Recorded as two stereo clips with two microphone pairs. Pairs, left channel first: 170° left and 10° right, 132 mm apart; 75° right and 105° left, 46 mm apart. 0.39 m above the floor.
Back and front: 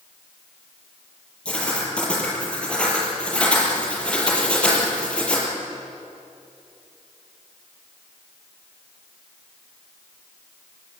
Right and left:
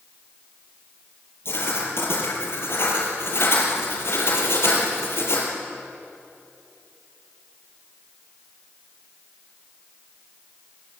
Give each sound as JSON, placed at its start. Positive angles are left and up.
{"t": 1.4, "sound": "writing", "azimuth_deg": -105, "distance_m": 6.0}